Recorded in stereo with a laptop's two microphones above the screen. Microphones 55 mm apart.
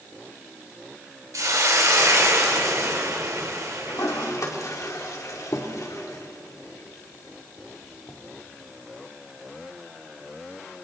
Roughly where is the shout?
I don't hear a shout.